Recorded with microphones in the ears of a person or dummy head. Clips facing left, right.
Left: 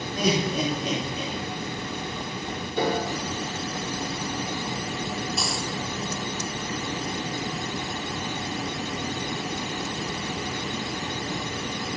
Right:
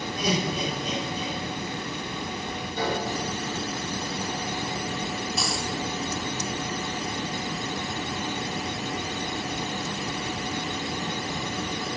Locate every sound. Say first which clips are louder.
0.2 s laughter: left 3 dB; 70° left (ahead or behind), 3 m
2.8 s a piano: left 3 dB; 80° left, 4 m
5.4 s a dropped coin: even; centre (ahead or behind), 1.6 m